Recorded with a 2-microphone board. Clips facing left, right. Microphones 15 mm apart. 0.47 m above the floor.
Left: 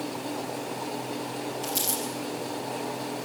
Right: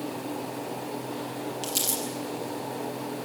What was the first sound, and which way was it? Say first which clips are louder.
Crumpling: right 1 dB; 35° right (ahead or behind).